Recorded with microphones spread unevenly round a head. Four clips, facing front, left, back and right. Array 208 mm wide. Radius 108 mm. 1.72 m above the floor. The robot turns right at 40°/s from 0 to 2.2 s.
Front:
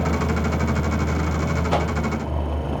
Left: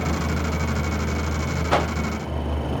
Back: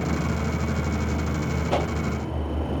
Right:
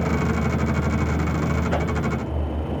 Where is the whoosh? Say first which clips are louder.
Left 3 dB, front 2 dB; 155° left, 0.6 m; by 1.9 s 165° left, 0.6 m.